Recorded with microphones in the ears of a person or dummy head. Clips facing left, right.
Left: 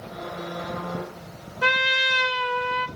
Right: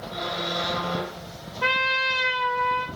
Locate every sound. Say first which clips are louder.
1.6 s a trumpet: left 2 dB; 20° left (ahead or behind), 1.2 m